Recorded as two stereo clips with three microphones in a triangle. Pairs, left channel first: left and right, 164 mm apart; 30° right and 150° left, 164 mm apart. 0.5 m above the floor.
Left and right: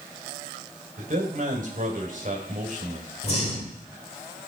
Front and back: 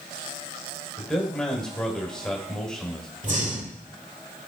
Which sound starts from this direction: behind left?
Breathing, at 3.2 s.